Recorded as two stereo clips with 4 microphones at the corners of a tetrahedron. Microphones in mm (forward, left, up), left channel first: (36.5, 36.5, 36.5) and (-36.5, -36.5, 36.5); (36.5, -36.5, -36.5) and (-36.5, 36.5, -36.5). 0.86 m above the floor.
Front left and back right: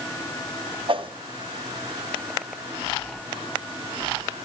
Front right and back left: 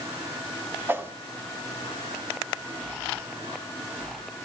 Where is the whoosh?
155° right, 1.4 m.